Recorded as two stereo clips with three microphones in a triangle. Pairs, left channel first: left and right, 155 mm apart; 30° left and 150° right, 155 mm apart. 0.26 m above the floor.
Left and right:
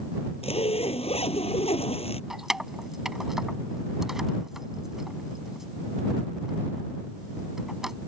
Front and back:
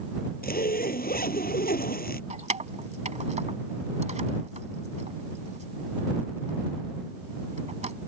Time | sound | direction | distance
0.4 | a zipper | 40° left | ?
2.3 | keys jangling | 175° right | ?